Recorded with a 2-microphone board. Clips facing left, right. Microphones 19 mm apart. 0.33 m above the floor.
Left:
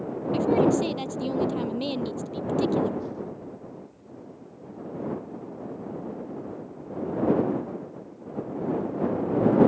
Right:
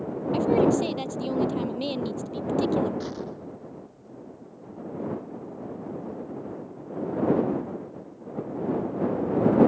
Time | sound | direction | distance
0.3 | a woman speaking | centre (ahead or behind) | ?
3.0 | an explosion | 65° right (ahead or behind) | ?